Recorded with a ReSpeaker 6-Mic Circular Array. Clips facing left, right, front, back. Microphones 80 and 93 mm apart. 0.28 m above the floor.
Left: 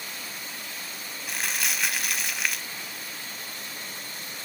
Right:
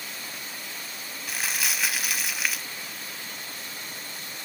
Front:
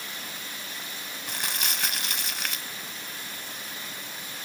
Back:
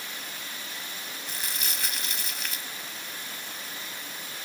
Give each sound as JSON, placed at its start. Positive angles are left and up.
{"t": 1.3, "sound": "crumpling", "azimuth_deg": -5, "distance_m": 0.5}